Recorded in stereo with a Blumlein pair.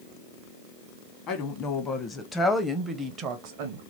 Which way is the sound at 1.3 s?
30° left.